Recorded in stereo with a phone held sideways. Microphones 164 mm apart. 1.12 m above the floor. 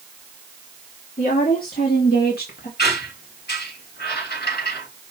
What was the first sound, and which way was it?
A woman speaking, 55° left (ahead or behind).